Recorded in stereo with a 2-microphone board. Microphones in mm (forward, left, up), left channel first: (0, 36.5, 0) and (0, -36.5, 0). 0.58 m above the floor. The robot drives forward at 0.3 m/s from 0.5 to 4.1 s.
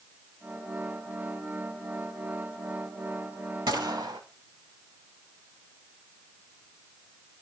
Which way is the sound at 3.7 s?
85° right.